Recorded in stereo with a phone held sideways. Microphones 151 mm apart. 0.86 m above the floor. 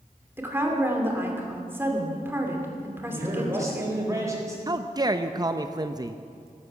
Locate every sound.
0.4 s a woman speaking: 15° right (ahead or behind), 2.5 m
3.1 s a man speaking: 20° right (ahead or behind), 4 m
4.7 s a man speaking: 25° right (ahead or behind), 0.6 m